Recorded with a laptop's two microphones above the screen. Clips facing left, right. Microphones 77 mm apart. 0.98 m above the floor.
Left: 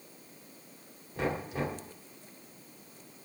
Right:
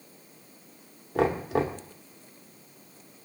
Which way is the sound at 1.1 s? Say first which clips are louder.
Right 8 dB; 75° right (ahead or behind).